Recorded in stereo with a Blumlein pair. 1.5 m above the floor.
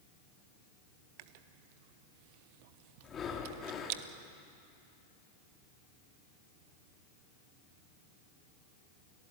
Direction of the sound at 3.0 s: 20° left.